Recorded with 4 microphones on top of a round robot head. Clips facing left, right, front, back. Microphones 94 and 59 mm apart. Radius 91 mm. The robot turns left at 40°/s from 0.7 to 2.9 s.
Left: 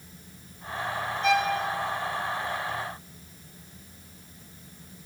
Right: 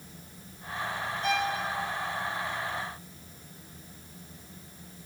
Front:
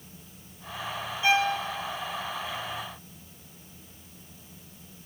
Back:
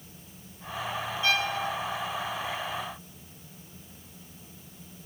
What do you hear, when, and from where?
1.2 s a violin: 75° left, 0.5 m; by 1.6 s 60° left, 0.5 m